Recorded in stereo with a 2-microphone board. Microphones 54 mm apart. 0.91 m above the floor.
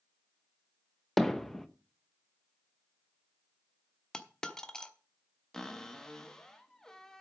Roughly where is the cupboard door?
Centre.